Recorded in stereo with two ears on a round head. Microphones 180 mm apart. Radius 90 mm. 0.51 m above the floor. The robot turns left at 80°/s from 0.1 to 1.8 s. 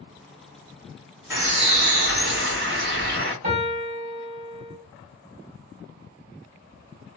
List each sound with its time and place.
1.3 s a bird: 15° right, 2 m; by 3.3 s 55° right, 2 m
3.4 s a piano: 40° right (ahead or behind), 2.5 m